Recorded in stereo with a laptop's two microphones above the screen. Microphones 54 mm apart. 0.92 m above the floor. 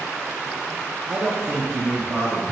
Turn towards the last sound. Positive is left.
turn(degrees=-25)  # may be behind; listen again after turning